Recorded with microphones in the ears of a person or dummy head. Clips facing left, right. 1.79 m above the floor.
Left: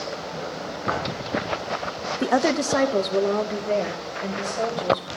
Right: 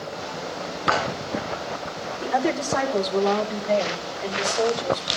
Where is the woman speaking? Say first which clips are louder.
Left 3 dB; 70° left (ahead or behind), 0.6 m; by 5.1 s 15° left (ahead or behind), 2 m.